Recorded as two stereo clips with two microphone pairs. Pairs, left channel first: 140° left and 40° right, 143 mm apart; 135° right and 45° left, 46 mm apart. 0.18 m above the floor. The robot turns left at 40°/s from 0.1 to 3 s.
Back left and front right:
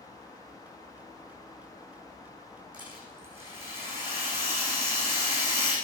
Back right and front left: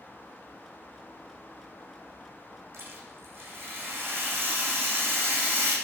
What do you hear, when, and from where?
2.7 s a rattle: 20° left, 9.5 m; by 5.8 s 10° left, 9.5 m